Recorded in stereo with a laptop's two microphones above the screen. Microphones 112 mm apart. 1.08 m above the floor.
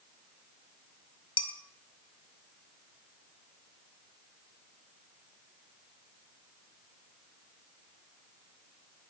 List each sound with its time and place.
1.4 s dishes clattering: 50° left (ahead or behind), 2 m